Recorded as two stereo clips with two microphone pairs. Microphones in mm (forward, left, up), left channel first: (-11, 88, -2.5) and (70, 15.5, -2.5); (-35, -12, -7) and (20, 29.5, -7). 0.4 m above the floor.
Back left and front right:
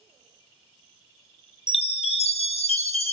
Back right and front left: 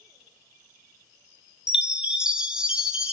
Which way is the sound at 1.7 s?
115° left.